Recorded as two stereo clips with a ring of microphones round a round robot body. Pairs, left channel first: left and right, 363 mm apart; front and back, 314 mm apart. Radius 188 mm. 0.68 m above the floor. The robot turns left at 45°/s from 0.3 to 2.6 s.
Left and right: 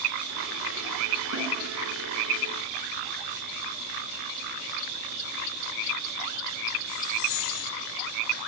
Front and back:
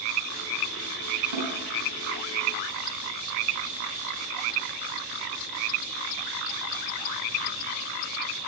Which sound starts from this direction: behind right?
A snare drum, at 1.3 s.